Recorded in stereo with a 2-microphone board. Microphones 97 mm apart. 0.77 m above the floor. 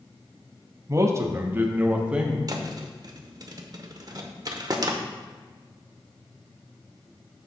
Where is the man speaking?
35° right (ahead or behind), 0.8 m; by 2.4 s 10° right (ahead or behind), 1.2 m.